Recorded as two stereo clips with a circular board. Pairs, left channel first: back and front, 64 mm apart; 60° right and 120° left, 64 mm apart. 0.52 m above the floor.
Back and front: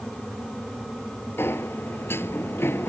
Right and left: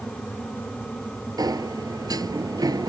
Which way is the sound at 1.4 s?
130° left.